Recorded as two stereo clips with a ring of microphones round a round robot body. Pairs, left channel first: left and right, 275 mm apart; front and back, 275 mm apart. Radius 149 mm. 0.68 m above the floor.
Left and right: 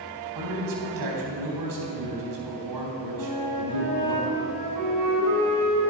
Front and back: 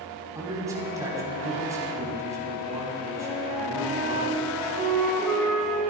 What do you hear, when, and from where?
0.3 s a man speaking: 100° right, 4.5 m
3.2 s a flute: 90° right, 4 m